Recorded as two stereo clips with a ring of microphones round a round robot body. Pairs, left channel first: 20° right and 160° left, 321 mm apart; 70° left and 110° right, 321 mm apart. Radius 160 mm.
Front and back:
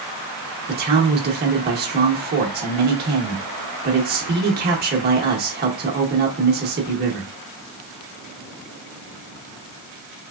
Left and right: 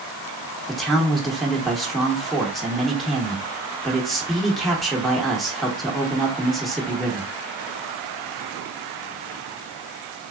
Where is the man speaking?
155° left, 0.8 m.